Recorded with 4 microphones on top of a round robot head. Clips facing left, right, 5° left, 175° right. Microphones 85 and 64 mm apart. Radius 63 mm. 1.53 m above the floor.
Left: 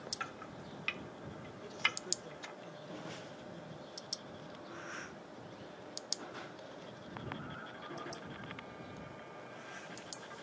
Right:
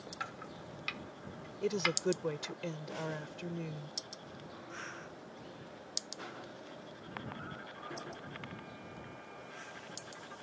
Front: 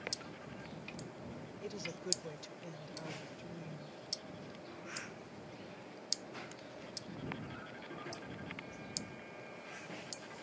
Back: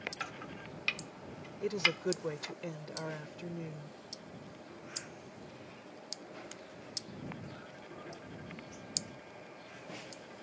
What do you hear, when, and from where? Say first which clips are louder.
0.2 s chopping: right 2 dB, back 5 dB; 170° right
1.6 s a woman speaking: right 9 dB, back 12 dB; 120° right